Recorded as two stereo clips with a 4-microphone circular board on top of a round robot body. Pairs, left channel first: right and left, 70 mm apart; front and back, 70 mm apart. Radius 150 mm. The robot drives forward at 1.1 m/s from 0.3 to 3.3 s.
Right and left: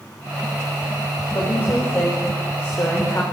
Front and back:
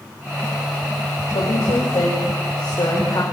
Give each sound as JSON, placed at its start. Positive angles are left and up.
{"t": 1.3, "sound": "a woman speaking", "azimuth_deg": -30, "distance_m": 7.5}